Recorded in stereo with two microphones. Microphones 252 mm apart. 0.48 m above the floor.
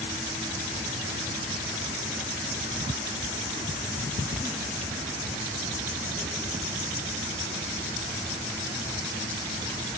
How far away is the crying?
I don't hear crying.